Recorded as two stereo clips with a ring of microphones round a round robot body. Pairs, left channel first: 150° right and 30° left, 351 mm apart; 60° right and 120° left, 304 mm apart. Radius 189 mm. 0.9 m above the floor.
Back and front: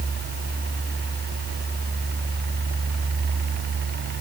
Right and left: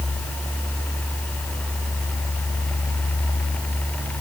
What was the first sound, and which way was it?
Only background noise.